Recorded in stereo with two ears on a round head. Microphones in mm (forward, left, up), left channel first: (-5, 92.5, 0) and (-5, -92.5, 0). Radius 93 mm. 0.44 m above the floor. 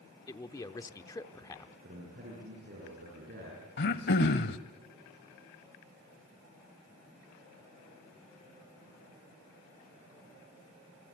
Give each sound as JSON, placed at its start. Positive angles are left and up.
{"t": 0.3, "sound": "a man speaking", "side_deg": 15, "distance_m": 0.7}
{"t": 1.8, "sound": "a man speaking", "side_deg": -45, "distance_m": 7.0}
{"t": 3.8, "sound": "throat clearing", "side_deg": 55, "distance_m": 1.0}